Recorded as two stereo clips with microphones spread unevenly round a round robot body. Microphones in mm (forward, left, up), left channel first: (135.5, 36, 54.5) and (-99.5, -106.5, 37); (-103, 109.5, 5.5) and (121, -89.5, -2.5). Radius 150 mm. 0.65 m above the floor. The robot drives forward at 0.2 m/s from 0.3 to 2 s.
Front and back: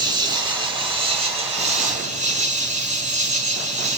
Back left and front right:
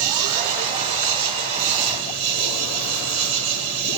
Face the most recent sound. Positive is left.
turn(degrees=-85)